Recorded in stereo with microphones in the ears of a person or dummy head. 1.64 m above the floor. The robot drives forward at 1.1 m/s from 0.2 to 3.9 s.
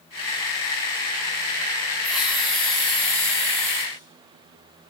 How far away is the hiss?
About 3 m.